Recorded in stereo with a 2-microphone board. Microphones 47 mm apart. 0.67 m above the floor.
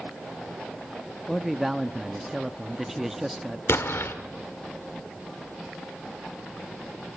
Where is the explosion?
65° left (ahead or behind), 1.8 m.